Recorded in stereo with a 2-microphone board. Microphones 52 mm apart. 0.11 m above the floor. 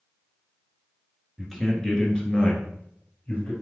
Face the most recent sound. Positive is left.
turn(degrees=40)  # may be behind; listen again after turning